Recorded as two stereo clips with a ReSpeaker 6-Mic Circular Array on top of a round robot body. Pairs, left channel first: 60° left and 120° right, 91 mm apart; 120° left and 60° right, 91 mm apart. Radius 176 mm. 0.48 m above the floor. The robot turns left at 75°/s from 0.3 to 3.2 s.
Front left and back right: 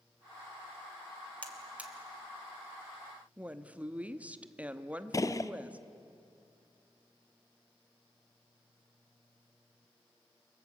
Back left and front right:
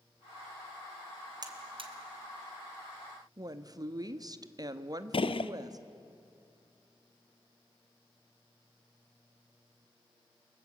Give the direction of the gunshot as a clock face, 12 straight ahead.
8 o'clock.